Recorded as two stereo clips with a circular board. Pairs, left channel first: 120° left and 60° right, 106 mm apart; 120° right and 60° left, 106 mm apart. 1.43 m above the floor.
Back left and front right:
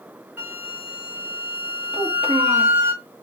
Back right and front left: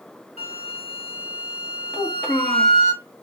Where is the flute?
130° right, 1.6 m.